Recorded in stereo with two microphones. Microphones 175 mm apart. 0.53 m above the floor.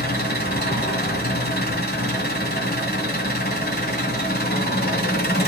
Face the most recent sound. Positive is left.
turn(degrees=60)  # may be behind; listen again after turning